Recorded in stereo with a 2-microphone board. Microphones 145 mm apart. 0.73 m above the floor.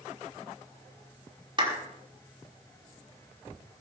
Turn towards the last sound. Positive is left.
turn(degrees=-35)  # may be behind; listen again after turning